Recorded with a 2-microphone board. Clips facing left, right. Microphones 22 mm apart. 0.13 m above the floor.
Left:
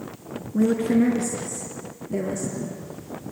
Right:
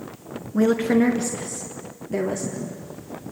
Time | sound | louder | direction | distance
0.5 | a woman speaking | right 1 dB | 40° right (ahead or behind) | 1.6 m